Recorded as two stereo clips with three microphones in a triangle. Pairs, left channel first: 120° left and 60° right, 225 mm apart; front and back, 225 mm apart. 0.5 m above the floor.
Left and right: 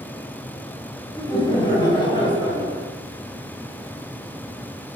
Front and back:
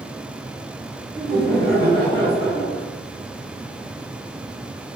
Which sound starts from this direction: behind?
Laughter, at 1.1 s.